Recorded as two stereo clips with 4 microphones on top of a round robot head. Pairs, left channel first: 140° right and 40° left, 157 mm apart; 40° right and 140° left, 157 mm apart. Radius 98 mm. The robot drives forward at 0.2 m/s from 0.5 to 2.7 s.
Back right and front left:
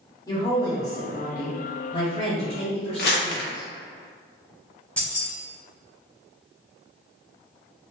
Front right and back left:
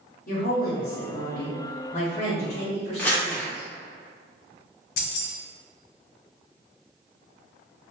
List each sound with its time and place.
0.3 s a woman speaking: 75° right, 1.2 m; by 3.7 s 95° right, 1.2 m
3.0 s crumpling: 120° right, 0.8 m
5.0 s keys jangling: 60° right, 0.7 m